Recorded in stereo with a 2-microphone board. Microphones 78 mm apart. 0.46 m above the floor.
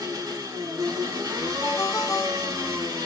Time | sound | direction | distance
0.0 | an engine running | 55° right (ahead or behind) | 3 m
1.6 | a ringtone | 40° left (ahead or behind) | 0.6 m